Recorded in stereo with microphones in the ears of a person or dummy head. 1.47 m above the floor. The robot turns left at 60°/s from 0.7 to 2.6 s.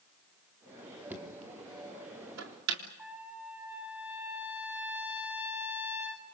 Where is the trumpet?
10° right (ahead or behind), 8.5 m.